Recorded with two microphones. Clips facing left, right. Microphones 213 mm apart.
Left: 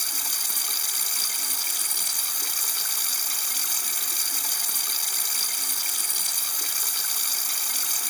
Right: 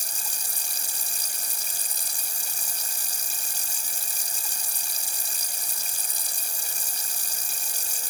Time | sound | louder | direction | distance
0.0 | running water | left 1 dB | 75° left (ahead or behind) | ?